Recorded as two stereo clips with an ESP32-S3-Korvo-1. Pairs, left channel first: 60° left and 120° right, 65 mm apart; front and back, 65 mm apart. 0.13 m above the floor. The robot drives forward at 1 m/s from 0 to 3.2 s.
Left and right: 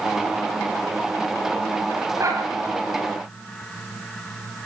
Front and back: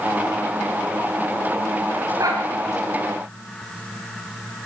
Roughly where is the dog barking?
Behind right.